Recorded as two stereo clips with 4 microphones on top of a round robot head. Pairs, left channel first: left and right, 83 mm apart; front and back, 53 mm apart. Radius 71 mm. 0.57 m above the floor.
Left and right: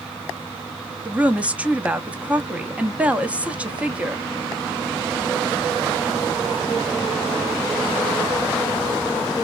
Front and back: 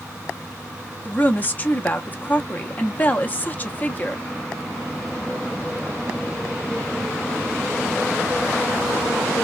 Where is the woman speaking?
25° right, 0.7 m.